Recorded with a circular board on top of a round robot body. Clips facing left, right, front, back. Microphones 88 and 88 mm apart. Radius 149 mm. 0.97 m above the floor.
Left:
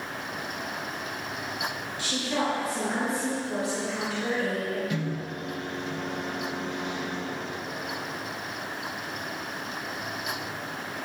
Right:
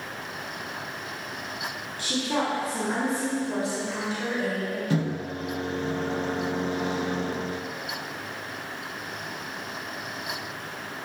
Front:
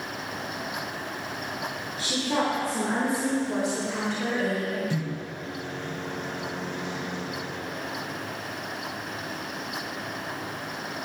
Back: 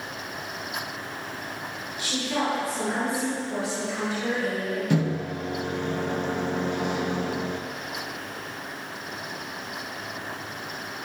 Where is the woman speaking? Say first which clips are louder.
Right 2 dB, front 1 dB; 50° right, 5.5 m; by 4.8 s 25° right, 6.5 m.